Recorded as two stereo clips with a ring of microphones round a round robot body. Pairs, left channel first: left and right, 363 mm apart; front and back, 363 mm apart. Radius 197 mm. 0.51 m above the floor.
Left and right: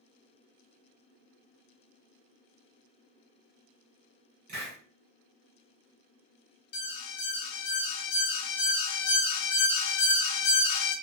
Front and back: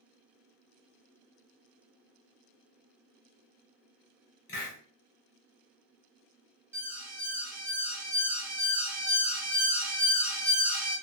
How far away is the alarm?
About 0.7 m.